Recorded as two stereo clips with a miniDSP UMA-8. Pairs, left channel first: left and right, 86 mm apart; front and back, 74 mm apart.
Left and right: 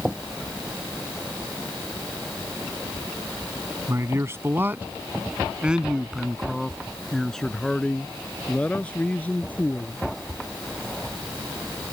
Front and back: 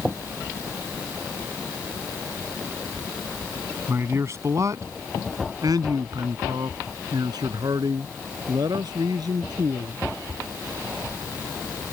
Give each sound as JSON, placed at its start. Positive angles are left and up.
{"t": 3.9, "sound": "a man speaking", "azimuth_deg": -135}